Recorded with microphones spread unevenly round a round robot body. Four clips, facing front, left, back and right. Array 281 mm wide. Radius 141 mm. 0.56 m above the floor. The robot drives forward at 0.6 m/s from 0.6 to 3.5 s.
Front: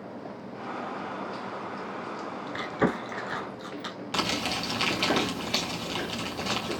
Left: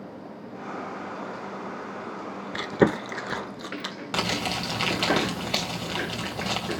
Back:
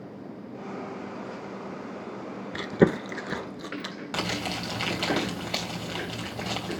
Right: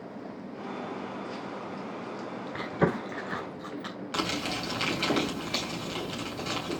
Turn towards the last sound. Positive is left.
turn(degrees=80)